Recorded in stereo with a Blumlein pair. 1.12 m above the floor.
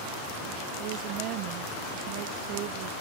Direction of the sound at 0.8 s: 40° right.